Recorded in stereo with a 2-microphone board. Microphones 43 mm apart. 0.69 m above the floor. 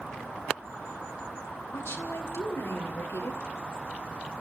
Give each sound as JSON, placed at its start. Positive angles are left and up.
{"t": 1.7, "sound": "a woman speaking", "side_deg": 75, "distance_m": 3.5}